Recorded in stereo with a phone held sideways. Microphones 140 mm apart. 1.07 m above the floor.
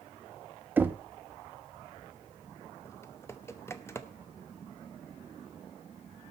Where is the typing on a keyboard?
20° left (ahead or behind), 0.8 m.